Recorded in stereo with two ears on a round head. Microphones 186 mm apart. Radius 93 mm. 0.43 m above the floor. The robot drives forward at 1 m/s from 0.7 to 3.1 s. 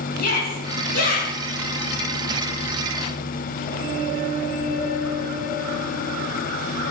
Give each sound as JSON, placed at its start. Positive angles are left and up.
{"t": 0.2, "sound": "a shout", "side_deg": 45, "distance_m": 5.5}